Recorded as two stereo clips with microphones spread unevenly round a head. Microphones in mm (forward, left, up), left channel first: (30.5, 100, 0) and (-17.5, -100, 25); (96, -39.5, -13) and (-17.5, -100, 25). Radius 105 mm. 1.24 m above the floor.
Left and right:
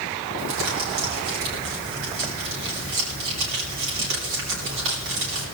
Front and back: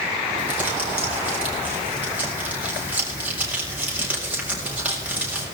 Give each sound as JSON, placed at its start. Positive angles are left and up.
{"t": 0.4, "sound": "crumpling", "azimuth_deg": -75, "distance_m": 6.5}